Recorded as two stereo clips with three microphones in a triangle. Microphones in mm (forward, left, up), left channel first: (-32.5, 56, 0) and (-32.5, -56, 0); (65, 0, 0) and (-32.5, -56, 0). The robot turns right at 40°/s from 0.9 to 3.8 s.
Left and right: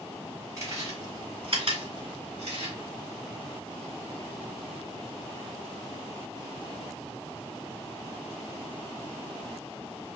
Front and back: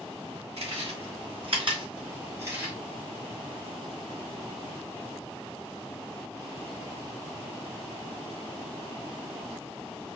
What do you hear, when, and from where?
0.6 s chewing: 150° right, 3 m; by 2.8 s 75° right, 3 m